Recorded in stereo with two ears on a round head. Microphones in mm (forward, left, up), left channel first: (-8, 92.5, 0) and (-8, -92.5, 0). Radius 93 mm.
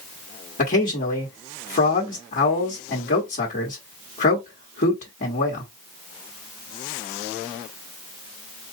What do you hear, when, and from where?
0.6 s a man speaking: 40° left (ahead or behind), 1.5 m